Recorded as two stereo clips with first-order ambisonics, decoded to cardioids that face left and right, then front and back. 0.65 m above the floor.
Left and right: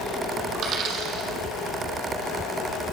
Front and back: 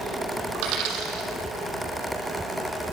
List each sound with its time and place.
0.6 s a dropped coin: 145° right, 3 m